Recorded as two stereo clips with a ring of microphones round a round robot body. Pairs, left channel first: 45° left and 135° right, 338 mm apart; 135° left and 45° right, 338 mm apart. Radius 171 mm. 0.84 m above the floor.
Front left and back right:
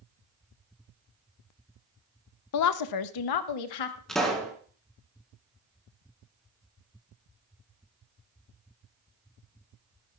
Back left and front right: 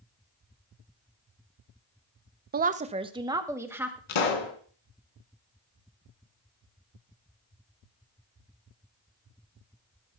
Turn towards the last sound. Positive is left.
turn(degrees=135)